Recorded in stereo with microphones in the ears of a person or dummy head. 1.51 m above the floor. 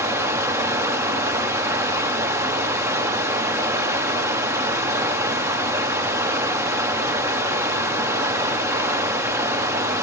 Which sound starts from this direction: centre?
Running water, at 0.0 s.